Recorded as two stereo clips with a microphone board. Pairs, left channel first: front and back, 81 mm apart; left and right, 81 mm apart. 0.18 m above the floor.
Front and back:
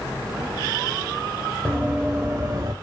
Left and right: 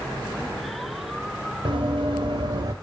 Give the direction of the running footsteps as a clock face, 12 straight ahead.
3 o'clock.